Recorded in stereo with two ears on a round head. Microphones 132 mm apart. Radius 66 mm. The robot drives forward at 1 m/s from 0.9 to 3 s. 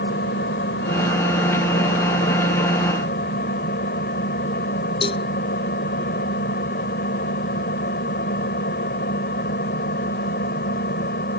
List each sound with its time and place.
0.0 s an engine running: 85° left; by 11.4 s 75° left (ahead or behind)
5.0 s a cowbell: 35° left (ahead or behind)